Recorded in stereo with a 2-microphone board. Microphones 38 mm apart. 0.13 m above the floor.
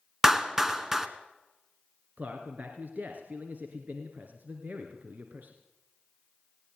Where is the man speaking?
45° right (ahead or behind), 2.5 m.